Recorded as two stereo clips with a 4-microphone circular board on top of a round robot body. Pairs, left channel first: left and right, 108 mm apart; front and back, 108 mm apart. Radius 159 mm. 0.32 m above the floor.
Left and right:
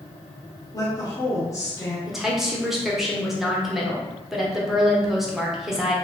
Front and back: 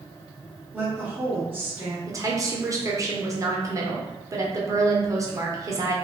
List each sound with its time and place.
0.7 s a woman speaking: 125° left, 1.0 m
2.1 s a woman speaking: 175° right, 0.9 m